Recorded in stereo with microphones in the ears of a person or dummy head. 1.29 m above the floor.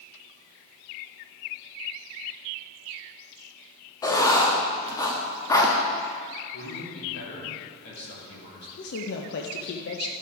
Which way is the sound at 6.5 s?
65° left (ahead or behind).